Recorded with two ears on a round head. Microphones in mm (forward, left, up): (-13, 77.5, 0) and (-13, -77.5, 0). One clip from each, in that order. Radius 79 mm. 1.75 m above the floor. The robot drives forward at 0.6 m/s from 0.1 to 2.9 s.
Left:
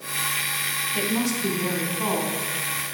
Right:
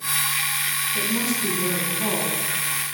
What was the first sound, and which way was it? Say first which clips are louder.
A woman speaking: right 1 dB; 55° left (ahead or behind).